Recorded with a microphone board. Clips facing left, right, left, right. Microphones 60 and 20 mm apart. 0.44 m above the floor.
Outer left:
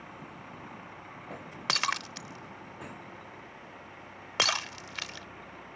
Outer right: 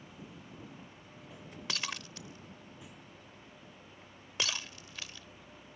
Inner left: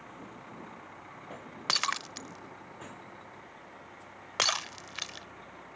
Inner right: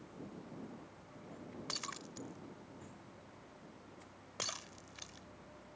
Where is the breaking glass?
65° left (ahead or behind).